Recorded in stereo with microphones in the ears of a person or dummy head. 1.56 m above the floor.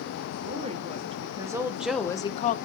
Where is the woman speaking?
35° right (ahead or behind), 1.6 m; by 2.6 s 40° left (ahead or behind), 0.6 m.